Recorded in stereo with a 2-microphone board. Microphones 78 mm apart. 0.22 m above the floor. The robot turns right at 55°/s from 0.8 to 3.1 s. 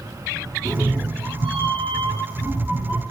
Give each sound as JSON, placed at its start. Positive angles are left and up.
{"t": 0.7, "sound": "a cat meowing", "azimuth_deg": -135, "distance_m": 0.9}